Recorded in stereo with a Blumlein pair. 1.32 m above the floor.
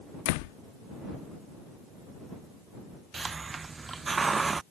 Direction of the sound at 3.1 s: 15° right.